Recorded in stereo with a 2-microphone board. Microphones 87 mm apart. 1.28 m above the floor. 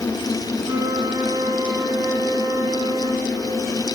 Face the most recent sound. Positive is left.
turn(degrees=-50)  # may be behind; listen again after turning